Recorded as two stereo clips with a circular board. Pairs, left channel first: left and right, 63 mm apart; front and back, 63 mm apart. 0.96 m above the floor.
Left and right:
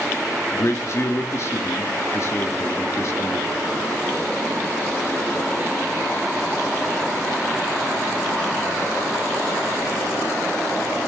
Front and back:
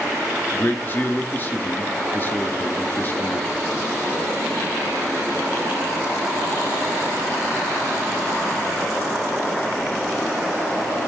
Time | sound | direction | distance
0.5 | a man speaking | 55° left | 1.8 m